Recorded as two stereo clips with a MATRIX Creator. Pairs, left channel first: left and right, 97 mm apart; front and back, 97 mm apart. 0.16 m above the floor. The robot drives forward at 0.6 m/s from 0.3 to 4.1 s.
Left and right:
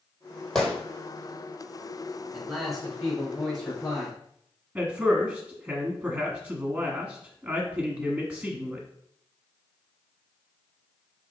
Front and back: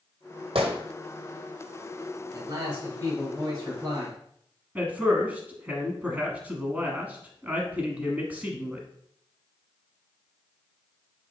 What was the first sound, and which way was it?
A gunshot, 175° left.